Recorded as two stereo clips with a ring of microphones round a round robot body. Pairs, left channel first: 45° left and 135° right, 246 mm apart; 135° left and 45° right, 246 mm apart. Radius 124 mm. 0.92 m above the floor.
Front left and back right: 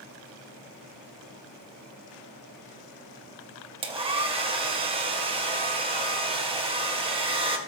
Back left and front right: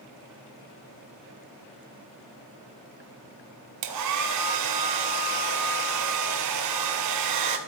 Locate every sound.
3.8 s a hair dryer: 65° right, 2.0 m